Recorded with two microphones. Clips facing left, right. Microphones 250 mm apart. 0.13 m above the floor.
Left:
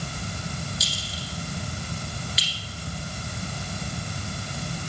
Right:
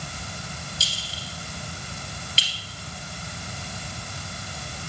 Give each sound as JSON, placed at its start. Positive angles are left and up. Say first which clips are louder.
{"t": 0.8, "sound": "a clink", "louder": "left 4 dB", "side_deg": -30, "distance_m": 1.9}